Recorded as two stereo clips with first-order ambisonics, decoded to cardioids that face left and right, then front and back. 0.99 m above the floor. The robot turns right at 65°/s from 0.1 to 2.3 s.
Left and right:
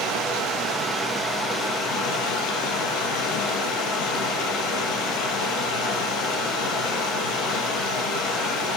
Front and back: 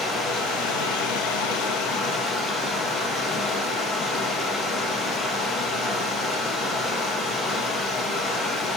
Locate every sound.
0.0 s running water: 65° right, 2 m; by 8.8 s 80° left, 2 m